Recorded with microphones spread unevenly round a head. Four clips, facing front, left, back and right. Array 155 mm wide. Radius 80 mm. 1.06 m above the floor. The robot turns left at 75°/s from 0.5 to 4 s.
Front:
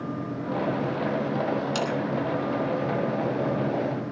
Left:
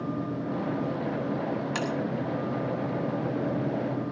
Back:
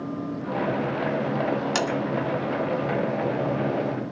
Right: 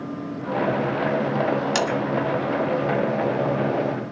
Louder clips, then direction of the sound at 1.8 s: Right 7 dB, back 2 dB; 120° right.